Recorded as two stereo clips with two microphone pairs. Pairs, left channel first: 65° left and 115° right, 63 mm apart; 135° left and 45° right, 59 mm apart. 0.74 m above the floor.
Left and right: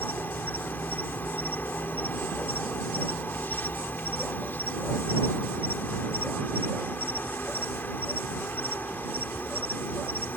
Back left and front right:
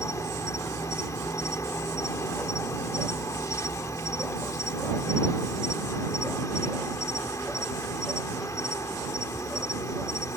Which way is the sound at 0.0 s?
120° left.